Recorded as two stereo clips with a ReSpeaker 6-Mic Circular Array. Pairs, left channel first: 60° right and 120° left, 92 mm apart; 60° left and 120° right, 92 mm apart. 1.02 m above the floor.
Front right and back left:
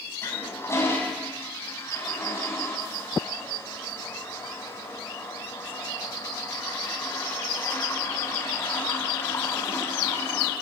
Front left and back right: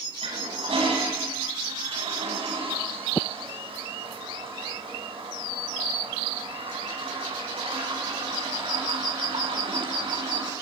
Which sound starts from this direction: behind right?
A toilet flushing, at 0.2 s.